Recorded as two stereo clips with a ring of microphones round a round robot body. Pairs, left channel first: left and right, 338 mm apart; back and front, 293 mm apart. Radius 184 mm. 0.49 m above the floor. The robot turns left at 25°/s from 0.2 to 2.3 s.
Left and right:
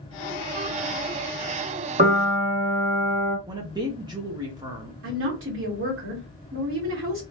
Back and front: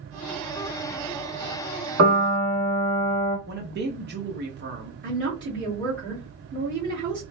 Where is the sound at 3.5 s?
20° right, 0.8 m.